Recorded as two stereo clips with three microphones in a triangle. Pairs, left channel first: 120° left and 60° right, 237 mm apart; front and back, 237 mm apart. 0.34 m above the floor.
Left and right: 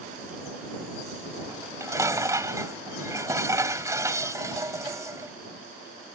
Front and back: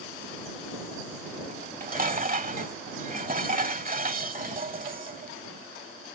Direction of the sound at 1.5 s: 135° right.